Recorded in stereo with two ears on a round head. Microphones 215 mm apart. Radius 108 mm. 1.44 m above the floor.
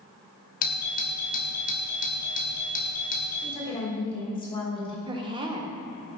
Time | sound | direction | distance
0.6 | a doorbell | 35° left (ahead or behind) | 0.8 m
3.4 | a woman speaking | 20° left (ahead or behind) | 1.6 m
5.1 | a woman speaking | 20° right (ahead or behind) | 0.7 m